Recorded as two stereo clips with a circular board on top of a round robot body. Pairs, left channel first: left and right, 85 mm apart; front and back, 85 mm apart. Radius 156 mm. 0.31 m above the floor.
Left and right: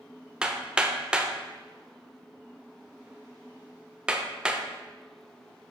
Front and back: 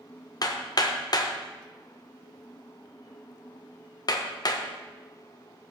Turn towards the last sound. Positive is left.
turn(degrees=-15)